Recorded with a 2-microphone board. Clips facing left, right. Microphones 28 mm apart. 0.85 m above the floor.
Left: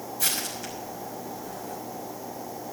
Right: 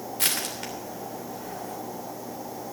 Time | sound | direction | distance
0.2 | crushing | 70° right (ahead or behind) | 3 m